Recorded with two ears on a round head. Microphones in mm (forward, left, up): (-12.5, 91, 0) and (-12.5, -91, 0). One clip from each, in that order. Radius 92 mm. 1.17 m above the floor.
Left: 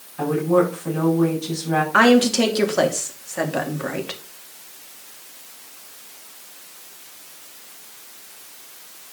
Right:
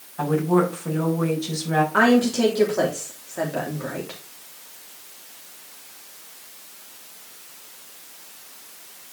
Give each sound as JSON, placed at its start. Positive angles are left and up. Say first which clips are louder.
{"t": 0.2, "sound": "a woman speaking", "louder": "left 2 dB", "side_deg": -10, "distance_m": 6.5}
{"t": 1.9, "sound": "a woman speaking", "louder": "left 5 dB", "side_deg": 75, "distance_m": 2.5}